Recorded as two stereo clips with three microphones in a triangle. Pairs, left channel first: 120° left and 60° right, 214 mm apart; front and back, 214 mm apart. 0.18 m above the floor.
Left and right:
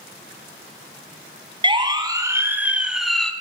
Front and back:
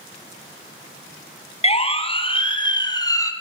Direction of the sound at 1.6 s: 20° right.